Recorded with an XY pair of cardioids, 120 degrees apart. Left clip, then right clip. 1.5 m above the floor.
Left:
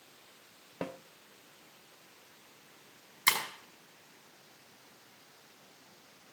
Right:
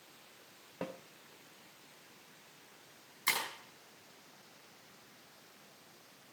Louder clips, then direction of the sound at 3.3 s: Left 5 dB; 65° left.